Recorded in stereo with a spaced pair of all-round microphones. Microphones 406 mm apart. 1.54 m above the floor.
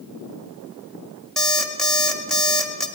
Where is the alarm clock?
Centre (ahead or behind), 1.9 m.